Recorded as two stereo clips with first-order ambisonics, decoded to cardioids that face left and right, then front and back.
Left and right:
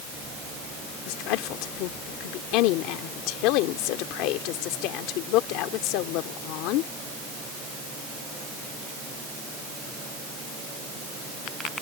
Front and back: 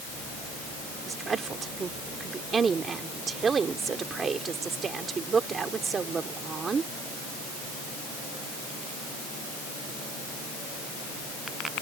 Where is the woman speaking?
110° left.